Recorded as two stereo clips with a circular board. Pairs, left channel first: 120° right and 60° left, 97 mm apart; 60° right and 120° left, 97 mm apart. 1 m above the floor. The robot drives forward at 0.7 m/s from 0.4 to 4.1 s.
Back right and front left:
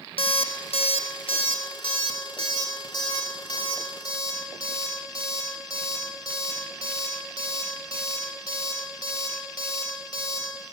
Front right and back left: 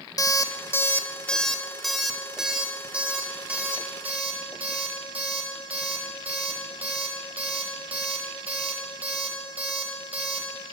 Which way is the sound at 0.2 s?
110° right.